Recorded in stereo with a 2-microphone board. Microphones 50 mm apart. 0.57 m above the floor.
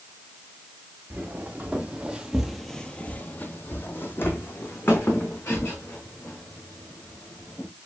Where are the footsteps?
35° right (ahead or behind), 1.4 m; by 7.7 s 45° left (ahead or behind), 4 m.